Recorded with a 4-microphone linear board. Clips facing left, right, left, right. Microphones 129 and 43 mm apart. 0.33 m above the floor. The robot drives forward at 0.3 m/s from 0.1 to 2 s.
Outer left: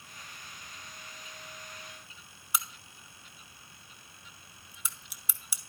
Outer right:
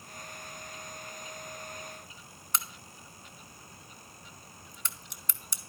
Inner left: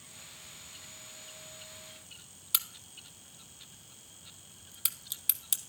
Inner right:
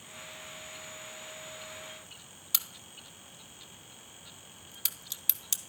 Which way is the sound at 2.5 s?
10° left (ahead or behind).